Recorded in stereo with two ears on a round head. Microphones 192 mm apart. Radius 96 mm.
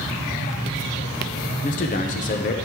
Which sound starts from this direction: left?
A man speaking, at 1.6 s.